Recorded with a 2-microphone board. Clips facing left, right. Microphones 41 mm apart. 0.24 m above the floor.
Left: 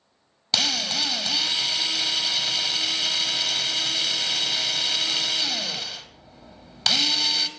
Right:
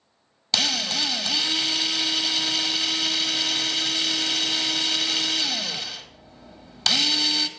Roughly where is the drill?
Centre.